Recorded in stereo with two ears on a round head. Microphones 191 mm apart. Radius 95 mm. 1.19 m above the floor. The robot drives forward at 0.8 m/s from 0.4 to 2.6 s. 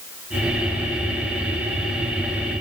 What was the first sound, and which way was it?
Only background noise.